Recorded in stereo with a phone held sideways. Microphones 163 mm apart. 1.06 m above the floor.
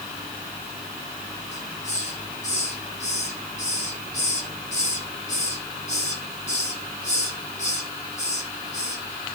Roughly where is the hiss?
Left.